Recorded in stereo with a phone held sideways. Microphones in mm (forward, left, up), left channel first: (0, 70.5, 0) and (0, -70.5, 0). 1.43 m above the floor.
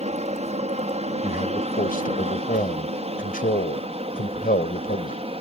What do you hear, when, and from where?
0.0 s an aircraft: 50° right (ahead or behind); by 5.4 s 45° right (ahead or behind)
1.2 s a man speaking: 85° left